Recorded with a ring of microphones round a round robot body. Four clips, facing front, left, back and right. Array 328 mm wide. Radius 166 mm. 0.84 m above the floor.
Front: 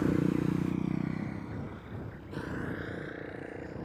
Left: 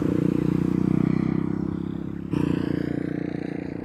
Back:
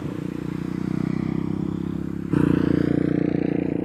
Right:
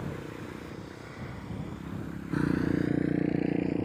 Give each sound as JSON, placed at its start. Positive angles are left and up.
{"t": 0.0, "sound": "a motorcycle", "azimuth_deg": 80}